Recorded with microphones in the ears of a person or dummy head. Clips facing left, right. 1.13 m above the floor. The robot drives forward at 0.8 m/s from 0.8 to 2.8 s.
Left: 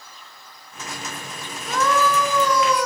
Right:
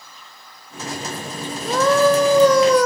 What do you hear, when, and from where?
1.6 s a scream: 30° right (ahead or behind), 4 m; by 2.9 s 40° right (ahead or behind), 3 m